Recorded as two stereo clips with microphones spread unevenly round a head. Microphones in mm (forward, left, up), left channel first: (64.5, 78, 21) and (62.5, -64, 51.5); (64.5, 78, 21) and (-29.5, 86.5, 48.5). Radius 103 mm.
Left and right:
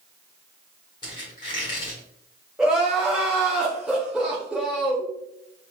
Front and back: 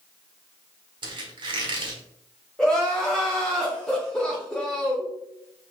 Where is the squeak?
160° left, 1.1 m.